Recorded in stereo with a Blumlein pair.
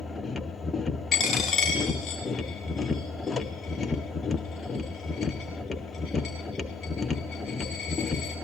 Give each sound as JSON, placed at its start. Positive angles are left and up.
{"t": 0.0, "sound": "a machine running", "azimuth_deg": 15, "distance_m": 0.9}
{"t": 1.1, "sound": "a dropped coin", "azimuth_deg": 20, "distance_m": 7.0}